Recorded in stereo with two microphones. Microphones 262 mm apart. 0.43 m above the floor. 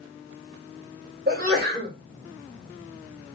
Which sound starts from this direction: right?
A sneeze, at 1.3 s.